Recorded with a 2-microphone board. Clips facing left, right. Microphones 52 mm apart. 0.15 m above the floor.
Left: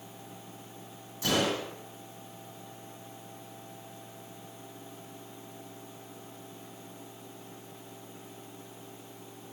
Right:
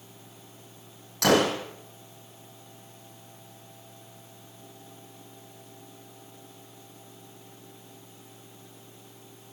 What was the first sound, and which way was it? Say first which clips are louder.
A gunshot: right 7 dB; 75° right (ahead or behind).